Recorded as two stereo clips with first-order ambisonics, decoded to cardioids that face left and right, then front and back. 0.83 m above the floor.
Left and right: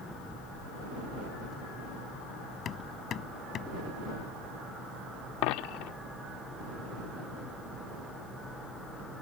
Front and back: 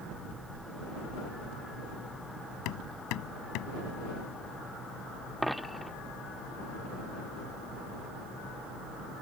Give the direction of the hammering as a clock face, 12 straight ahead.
11 o'clock.